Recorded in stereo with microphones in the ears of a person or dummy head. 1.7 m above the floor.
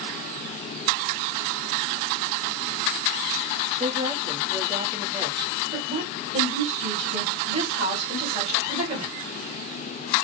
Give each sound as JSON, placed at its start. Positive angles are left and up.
{"t": 3.8, "sound": "a woman speaking", "side_deg": -35, "distance_m": 1.3}
{"t": 5.7, "sound": "a woman speaking", "side_deg": -40, "distance_m": 2.5}